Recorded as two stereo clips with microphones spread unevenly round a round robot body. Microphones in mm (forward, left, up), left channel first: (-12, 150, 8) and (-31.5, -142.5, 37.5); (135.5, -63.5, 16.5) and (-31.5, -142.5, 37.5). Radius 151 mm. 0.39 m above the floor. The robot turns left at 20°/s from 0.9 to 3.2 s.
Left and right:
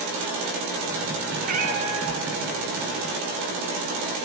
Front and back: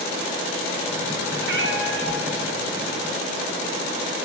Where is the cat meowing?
155° right, 0.8 m; by 2.3 s 170° right, 0.8 m.